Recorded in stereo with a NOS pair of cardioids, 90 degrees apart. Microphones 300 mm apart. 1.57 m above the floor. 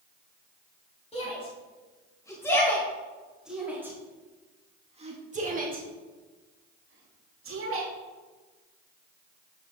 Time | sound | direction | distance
1.1 | a shout | 20° left | 3.5 m